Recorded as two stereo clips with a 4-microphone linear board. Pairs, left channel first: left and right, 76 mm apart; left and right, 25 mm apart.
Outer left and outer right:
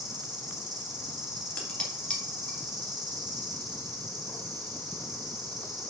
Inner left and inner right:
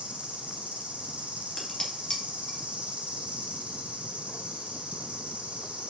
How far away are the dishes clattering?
About 1.9 m.